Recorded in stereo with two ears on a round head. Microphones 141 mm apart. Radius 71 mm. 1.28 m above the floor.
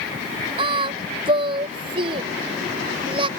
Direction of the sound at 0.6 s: 35° right (ahead or behind).